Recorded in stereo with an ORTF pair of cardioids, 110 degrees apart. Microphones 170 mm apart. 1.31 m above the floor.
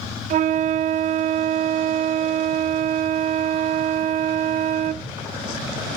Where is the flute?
50° right, 0.6 m.